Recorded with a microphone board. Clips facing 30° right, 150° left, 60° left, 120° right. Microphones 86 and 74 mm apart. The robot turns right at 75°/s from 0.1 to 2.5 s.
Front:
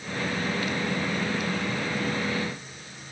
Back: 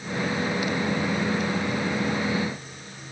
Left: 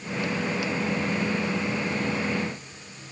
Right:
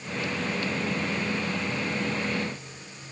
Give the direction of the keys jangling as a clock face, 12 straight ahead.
No keys jangling in this recording.